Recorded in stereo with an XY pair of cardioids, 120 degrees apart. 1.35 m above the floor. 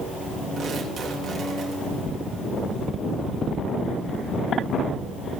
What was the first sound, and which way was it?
Tearing paper, 40° right.